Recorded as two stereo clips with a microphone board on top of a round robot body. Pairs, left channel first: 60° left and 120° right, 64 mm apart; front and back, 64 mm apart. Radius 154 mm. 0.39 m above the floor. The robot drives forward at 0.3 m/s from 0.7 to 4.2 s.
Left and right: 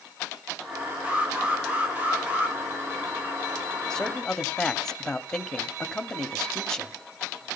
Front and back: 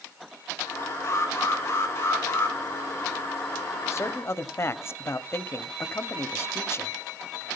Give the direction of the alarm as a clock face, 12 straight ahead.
2 o'clock.